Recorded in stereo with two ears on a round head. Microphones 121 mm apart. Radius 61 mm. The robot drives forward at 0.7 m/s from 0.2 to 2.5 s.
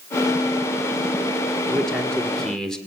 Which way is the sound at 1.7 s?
5° left (ahead or behind).